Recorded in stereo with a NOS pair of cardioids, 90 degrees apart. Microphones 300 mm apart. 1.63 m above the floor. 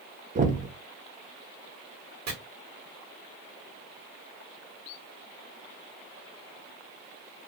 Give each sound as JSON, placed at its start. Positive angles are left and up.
{"t": 0.3, "sound": "knocking", "azimuth_deg": -25, "distance_m": 0.8}
{"t": 2.3, "sound": "chopping", "azimuth_deg": -60, "distance_m": 1.5}